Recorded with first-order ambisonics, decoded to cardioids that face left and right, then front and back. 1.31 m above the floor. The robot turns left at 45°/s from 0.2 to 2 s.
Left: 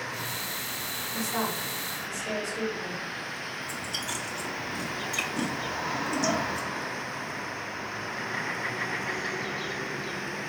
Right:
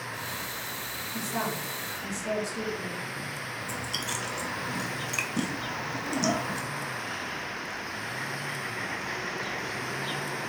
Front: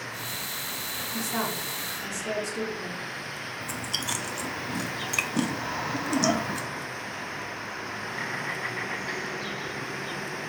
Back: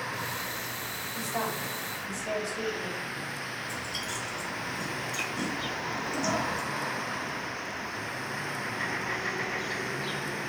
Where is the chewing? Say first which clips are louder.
Right 1 dB, front 3 dB; 15° right, 0.6 m.